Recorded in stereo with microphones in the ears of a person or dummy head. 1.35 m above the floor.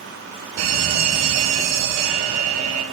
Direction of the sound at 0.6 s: 65° right (ahead or behind).